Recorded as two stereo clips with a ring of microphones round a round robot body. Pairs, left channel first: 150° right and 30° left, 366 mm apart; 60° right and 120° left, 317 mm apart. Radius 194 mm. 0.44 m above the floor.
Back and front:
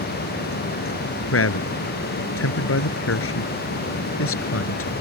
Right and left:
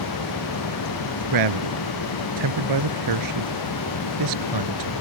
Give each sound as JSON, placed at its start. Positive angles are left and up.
{"t": 1.3, "sound": "a man speaking", "azimuth_deg": 155}